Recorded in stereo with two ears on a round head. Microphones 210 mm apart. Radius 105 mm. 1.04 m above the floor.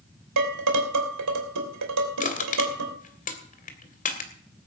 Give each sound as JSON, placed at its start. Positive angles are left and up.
{"t": 0.4, "sound": "dishes clattering", "side_deg": -85, "distance_m": 2.5}
{"t": 2.2, "sound": "crushing", "side_deg": 35, "distance_m": 2.0}